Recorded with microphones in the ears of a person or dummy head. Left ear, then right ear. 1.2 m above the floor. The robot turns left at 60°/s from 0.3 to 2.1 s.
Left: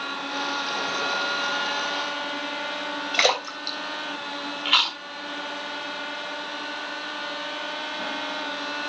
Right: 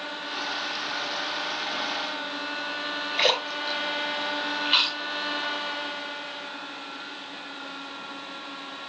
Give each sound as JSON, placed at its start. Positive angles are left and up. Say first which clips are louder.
{"t": 3.1, "sound": "a splash", "louder": "left 2 dB", "side_deg": 60, "distance_m": 3.0}
{"t": 4.7, "sound": "chewing", "louder": "left 3 dB", "side_deg": 35, "distance_m": 2.0}